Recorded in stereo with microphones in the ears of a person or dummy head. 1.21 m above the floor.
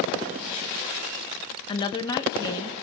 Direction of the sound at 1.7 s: 30° left (ahead or behind).